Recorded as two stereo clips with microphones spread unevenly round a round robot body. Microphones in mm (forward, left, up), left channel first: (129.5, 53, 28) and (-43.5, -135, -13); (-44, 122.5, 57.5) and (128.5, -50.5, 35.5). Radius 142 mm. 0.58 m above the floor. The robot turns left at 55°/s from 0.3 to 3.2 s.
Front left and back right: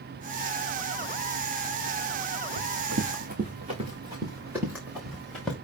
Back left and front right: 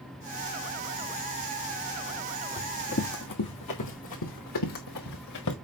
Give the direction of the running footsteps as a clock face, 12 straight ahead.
5 o'clock.